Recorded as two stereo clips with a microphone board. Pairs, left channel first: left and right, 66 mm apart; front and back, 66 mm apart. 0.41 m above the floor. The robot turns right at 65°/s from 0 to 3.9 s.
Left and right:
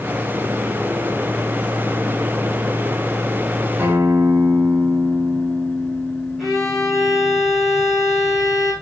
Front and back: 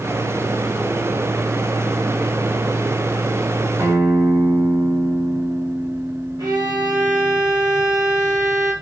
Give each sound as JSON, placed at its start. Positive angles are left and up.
{"t": 3.8, "sound": "a guitar", "azimuth_deg": -145, "distance_m": 3.5}
{"t": 6.4, "sound": "a violin", "azimuth_deg": -175, "distance_m": 5.5}